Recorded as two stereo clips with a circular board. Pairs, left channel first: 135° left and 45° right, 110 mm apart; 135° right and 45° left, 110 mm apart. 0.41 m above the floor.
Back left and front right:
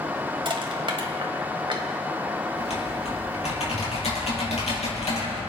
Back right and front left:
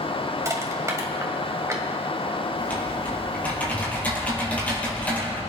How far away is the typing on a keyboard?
About 3.5 m.